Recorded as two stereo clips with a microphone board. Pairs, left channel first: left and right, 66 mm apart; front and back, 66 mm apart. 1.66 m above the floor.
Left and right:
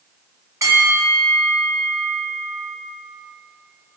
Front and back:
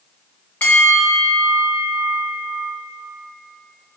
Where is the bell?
60° right, 1.8 m.